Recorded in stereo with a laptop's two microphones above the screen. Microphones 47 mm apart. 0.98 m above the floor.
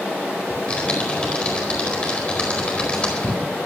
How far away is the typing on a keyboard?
About 4.5 m.